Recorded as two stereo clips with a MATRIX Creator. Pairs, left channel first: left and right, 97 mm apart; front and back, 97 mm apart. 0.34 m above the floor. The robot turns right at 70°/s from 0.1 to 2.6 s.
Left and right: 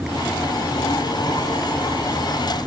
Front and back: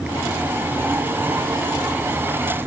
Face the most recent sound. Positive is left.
No sound to turn to.